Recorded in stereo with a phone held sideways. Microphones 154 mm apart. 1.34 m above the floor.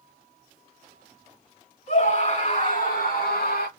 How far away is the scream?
About 3.5 m.